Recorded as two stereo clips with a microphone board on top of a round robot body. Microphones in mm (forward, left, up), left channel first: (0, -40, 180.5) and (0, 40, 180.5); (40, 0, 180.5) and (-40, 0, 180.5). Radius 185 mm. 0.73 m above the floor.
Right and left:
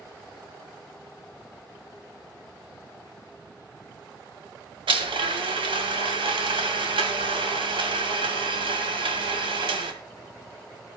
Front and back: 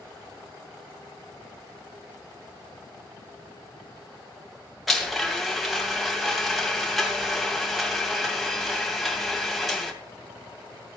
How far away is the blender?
About 2.5 m.